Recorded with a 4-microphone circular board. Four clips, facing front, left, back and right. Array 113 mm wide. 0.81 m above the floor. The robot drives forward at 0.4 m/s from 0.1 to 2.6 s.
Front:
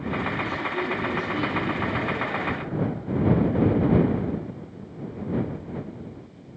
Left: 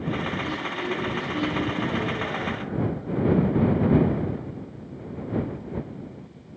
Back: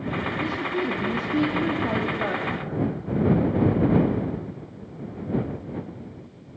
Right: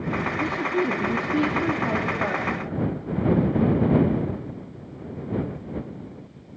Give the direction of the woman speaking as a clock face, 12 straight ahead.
4 o'clock.